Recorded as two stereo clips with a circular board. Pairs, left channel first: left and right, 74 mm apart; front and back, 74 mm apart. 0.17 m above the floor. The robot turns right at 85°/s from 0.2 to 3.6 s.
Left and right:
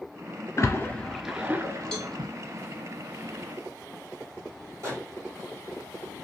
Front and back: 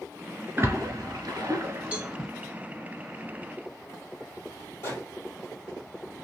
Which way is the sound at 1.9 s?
155° left.